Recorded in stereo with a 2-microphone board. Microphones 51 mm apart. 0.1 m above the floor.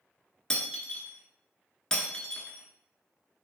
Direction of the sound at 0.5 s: 15° left (ahead or behind).